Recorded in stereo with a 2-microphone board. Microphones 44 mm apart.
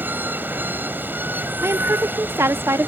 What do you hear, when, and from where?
0.0 s running water: 50° right (ahead or behind)
1.6 s a woman speaking: 80° right